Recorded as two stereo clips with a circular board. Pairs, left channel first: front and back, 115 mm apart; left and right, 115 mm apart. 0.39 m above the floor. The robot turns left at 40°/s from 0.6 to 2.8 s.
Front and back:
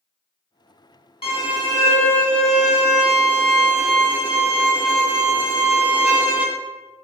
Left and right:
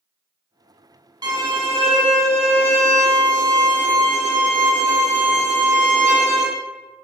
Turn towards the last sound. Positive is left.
turn(degrees=-100)